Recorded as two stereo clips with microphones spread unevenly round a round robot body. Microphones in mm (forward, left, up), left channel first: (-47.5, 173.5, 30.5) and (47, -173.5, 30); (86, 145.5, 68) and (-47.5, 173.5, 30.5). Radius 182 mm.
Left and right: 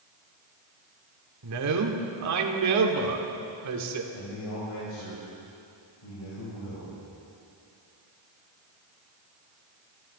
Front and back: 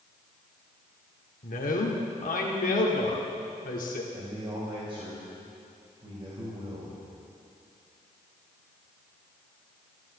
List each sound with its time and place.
1.4 s a man speaking: 40° right, 1.8 m
4.1 s a man speaking: 120° left, 4 m